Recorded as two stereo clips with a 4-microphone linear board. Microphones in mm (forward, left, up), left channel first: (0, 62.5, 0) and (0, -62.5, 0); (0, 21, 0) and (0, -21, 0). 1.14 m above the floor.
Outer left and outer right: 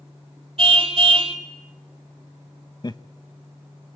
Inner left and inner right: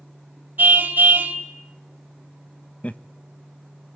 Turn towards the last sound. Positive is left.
turn(degrees=35)  # may be behind; listen again after turning